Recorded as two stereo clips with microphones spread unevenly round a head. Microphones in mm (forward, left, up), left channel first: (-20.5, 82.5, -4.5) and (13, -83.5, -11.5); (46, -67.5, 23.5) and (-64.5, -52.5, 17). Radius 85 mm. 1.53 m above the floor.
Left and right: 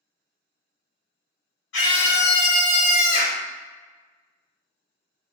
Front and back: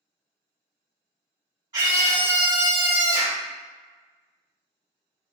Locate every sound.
1.7 s a scream: 105° left, 1.6 m; by 3.4 s 110° left, 0.7 m